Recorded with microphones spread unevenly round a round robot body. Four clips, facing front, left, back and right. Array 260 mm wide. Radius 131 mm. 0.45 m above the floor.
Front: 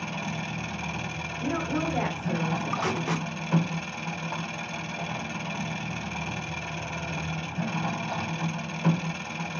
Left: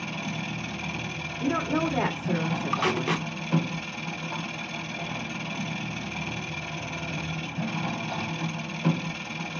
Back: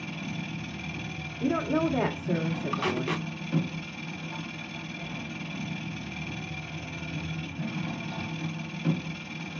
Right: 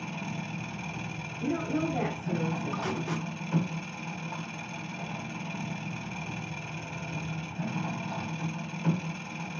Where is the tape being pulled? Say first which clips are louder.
Left 6 dB, front 1 dB; 75° left, 0.6 m.